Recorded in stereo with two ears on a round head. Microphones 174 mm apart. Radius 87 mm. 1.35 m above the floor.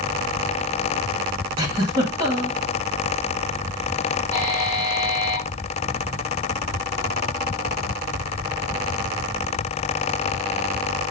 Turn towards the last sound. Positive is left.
turn(degrees=-20)  # may be behind; listen again after turning